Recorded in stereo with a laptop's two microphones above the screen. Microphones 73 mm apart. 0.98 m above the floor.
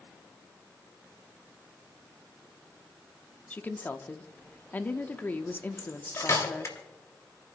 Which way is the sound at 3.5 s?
25° left (ahead or behind).